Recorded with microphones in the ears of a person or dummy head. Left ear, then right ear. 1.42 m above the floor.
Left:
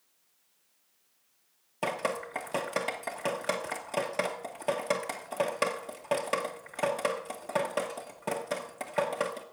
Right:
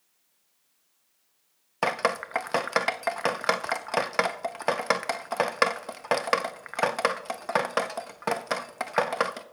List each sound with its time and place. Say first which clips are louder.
1.8 s dripping: right 6 dB; 30° right (ahead or behind), 0.5 m